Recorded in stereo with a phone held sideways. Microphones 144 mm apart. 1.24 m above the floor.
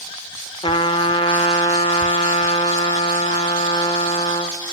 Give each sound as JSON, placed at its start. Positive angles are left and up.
{"t": 0.6, "sound": "a trumpet", "side_deg": 40, "distance_m": 1.0}